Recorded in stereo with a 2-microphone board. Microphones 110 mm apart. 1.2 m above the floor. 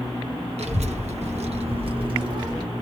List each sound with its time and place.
0.6 s a child speaking: 75° right (ahead or behind), 0.9 m; by 2.6 s 40° right (ahead or behind), 1.2 m